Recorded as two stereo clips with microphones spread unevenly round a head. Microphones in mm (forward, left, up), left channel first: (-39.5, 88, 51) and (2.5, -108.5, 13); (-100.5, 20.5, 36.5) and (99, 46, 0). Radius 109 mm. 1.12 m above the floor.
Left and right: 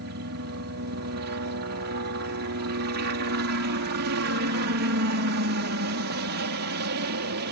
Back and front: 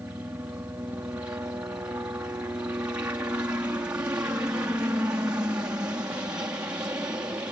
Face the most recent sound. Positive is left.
turn(degrees=-70)